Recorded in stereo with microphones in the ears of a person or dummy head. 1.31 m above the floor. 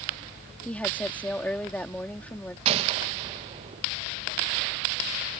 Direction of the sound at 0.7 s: 5° left (ahead or behind).